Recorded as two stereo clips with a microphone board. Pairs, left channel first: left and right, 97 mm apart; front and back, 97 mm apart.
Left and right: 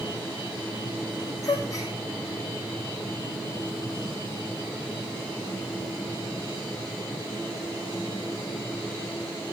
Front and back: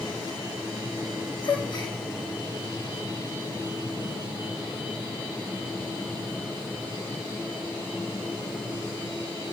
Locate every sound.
1.4 s a gasp: 35° left, 4.5 m